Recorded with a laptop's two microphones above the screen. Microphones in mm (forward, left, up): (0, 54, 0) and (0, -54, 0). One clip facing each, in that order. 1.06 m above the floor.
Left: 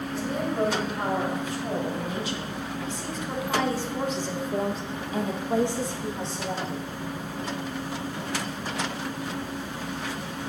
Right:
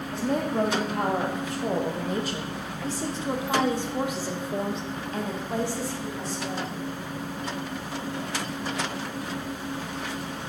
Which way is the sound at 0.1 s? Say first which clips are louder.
Right 3 dB; 70° right (ahead or behind).